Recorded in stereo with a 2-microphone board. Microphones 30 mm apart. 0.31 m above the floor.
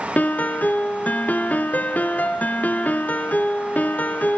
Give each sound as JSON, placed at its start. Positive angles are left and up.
{"t": 0.2, "sound": "a piano", "side_deg": 70, "distance_m": 1.6}